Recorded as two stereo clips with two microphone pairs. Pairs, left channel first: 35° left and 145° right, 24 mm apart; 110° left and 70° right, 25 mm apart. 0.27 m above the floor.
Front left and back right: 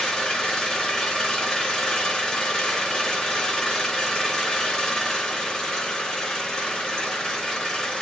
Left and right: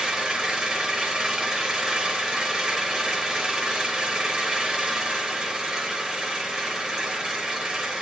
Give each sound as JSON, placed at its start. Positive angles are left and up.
{"t": 0.0, "sound": "an engine running", "azimuth_deg": -20, "distance_m": 1.9}